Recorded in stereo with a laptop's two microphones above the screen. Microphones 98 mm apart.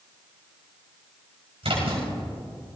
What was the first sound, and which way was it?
A splash, 80° right.